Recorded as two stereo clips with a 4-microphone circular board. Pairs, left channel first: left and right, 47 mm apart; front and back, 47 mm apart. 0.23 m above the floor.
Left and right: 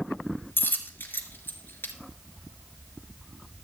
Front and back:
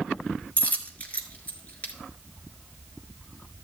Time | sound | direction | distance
0.6 | a dropped coin | 50° left | 1.5 m